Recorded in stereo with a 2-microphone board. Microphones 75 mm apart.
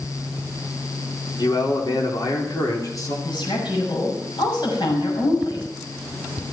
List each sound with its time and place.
1.4 s a man speaking: 75° left (ahead or behind), 4 m; by 3.1 s 50° left (ahead or behind), 4 m
3.2 s a woman speaking: 80° left, 6.5 m